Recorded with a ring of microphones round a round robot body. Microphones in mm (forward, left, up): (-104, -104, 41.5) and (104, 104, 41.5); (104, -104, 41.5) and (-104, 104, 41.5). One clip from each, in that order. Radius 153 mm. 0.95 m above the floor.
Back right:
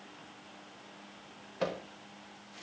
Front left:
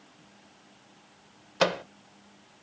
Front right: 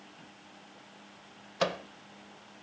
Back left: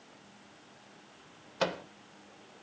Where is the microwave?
35° left, 0.8 m.